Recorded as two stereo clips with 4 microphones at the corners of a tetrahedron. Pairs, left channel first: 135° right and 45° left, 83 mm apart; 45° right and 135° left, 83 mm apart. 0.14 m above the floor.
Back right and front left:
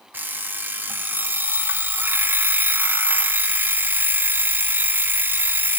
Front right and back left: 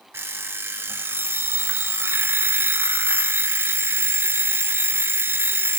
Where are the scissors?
No scissors in this recording.